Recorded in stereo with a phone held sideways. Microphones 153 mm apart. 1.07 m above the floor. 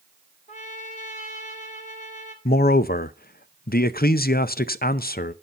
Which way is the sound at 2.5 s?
85° left.